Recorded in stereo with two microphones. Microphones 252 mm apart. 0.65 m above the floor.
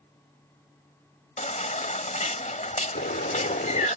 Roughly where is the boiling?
Left.